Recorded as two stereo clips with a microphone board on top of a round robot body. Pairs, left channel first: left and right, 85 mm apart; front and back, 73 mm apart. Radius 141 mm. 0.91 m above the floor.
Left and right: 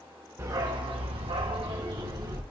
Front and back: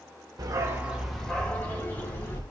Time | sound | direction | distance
0.4 | a dog barking | 145° right | 1.2 m